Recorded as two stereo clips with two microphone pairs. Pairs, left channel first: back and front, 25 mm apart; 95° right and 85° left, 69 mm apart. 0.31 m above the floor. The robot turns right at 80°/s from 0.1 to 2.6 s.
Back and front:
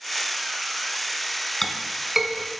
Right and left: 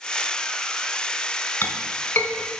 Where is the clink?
115° right, 1.0 m; by 2.5 s 40° right, 1.0 m.